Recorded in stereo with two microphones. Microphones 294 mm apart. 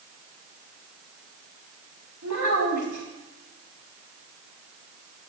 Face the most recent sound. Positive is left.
turn(degrees=-70)  # may be behind; listen again after turning